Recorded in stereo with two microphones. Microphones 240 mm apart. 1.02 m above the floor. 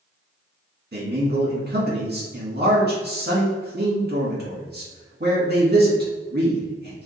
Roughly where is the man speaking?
Right.